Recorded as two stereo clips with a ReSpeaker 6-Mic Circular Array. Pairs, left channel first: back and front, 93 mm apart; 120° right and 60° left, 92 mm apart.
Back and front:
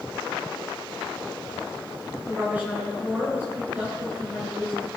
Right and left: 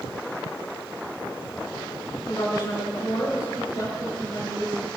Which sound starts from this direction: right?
A woman speaking, at 2.3 s.